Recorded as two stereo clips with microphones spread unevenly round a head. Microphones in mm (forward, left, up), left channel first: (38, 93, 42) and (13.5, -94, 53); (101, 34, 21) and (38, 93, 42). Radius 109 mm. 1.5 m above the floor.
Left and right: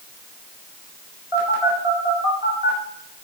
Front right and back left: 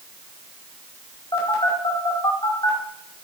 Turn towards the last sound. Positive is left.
turn(degrees=-25)